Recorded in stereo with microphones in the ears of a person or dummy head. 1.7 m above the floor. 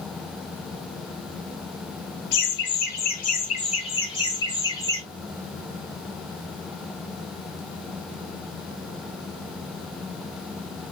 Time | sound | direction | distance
2.3 | laughter | 65° left (ahead or behind) | 1.3 m